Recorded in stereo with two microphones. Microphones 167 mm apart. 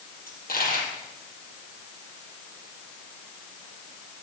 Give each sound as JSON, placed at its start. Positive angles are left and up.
{"t": 0.3, "sound": "a dropped coin", "side_deg": 70, "distance_m": 5.5}